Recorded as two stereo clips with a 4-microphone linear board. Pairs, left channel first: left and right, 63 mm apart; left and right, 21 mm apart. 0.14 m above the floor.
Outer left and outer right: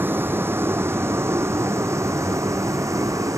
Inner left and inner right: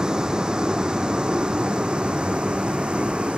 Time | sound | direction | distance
0.0 | a vehicle | 35° right (ahead or behind) | ?